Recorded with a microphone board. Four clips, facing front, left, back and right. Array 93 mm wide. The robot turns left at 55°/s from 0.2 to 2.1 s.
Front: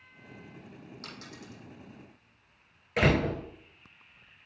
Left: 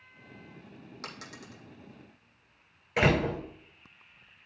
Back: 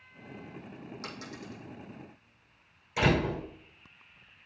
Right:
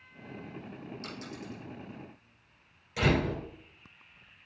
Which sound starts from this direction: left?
A dropped coin, at 1.0 s.